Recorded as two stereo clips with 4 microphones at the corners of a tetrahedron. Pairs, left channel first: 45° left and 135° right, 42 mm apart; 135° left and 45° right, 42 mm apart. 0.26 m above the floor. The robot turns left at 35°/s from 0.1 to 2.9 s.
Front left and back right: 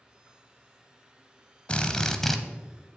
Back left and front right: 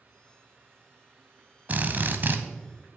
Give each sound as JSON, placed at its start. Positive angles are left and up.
{"t": 1.7, "sound": "a drill", "azimuth_deg": -10, "distance_m": 0.7}